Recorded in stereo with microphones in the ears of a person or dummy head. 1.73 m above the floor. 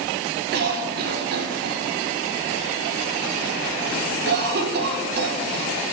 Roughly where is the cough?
Right.